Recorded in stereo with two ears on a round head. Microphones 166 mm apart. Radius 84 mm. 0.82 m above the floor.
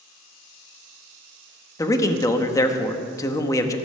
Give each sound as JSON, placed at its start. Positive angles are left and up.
{"t": 1.8, "sound": "a man speaking", "side_deg": 20, "distance_m": 1.0}